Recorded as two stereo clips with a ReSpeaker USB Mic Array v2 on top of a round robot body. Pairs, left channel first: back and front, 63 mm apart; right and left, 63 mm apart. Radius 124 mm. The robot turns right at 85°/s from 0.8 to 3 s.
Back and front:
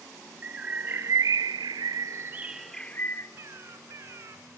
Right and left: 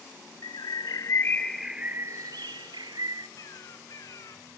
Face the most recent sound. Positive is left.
turn(degrees=-50)